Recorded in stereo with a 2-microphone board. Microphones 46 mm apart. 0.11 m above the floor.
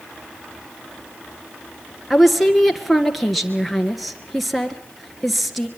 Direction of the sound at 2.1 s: Centre (ahead or behind).